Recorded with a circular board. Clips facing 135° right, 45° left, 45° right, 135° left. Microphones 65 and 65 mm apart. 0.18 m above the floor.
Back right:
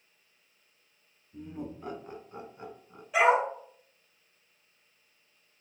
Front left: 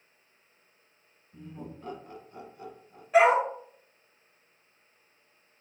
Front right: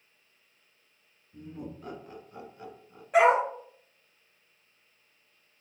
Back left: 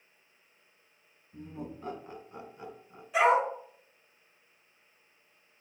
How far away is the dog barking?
About 2 m.